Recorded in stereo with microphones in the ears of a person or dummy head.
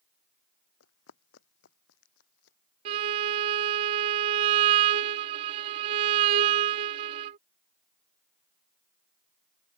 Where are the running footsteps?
75° left (ahead or behind).